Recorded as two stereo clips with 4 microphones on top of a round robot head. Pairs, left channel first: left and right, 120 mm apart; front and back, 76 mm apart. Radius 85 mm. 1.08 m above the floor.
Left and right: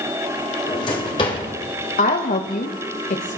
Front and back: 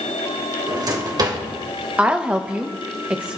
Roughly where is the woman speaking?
Left.